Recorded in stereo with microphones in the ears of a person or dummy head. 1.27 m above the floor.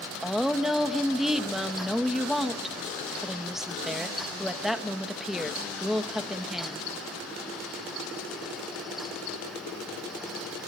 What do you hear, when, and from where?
0.2 s a woman speaking: centre (ahead or behind), 1.1 m